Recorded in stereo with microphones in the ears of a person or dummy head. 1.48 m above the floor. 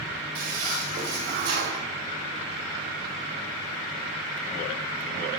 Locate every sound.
0.3 s a toilet flushing: 60° right (ahead or behind), 2 m